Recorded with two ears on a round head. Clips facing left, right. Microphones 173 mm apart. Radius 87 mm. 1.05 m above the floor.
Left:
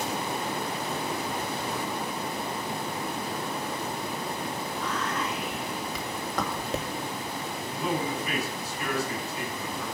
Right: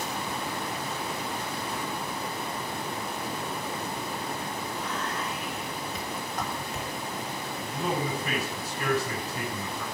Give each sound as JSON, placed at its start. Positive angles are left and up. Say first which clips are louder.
{"t": 4.7, "sound": "whispering", "louder": "left 3 dB", "side_deg": 60, "distance_m": 2.0}
{"t": 7.6, "sound": "a man speaking", "louder": "even", "side_deg": -40, "distance_m": 8.5}